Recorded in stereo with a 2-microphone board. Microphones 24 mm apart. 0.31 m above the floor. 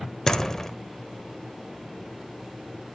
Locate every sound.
0.3 s a door slam: 15° left (ahead or behind), 0.8 m